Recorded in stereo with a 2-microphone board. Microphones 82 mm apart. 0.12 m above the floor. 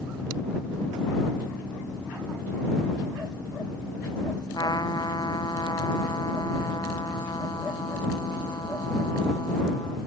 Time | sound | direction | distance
4.5 | a trumpet | 60° left (ahead or behind) | ?